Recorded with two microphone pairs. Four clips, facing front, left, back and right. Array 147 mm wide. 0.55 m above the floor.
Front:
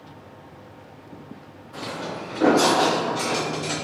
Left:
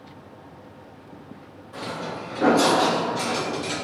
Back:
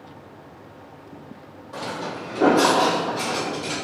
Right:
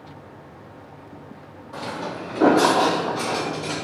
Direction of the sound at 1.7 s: 140° right.